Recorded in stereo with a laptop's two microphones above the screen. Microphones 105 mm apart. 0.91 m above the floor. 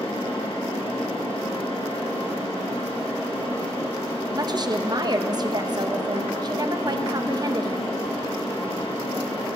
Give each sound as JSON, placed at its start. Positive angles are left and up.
{"t": 0.0, "sound": "a fan", "side_deg": 60, "distance_m": 3.0}
{"t": 4.3, "sound": "a woman speaking", "side_deg": -40, "distance_m": 0.7}